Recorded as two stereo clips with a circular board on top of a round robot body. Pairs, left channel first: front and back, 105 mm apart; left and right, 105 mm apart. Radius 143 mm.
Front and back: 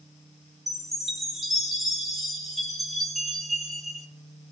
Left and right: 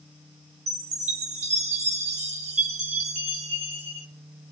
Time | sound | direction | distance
0.7 | a chime | 90° right | 1.2 m